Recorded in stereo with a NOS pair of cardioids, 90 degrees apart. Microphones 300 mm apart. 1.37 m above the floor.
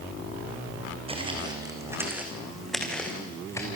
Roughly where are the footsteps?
Ahead.